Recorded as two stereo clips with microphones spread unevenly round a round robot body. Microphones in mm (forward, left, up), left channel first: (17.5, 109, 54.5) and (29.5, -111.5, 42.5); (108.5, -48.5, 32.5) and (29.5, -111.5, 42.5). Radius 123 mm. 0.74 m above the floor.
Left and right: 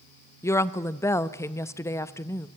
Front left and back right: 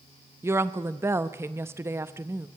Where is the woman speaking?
165° left, 0.6 m.